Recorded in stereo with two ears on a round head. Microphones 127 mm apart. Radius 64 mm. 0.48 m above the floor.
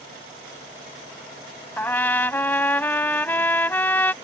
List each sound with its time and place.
1.8 s a trumpet: 15° left (ahead or behind)